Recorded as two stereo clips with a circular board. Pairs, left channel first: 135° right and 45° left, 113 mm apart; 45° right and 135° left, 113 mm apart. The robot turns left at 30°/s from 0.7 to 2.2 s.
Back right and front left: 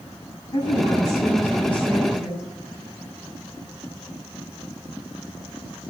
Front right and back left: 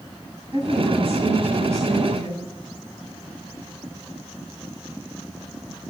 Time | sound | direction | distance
0.5 | a woman speaking | straight behind | 9.5 m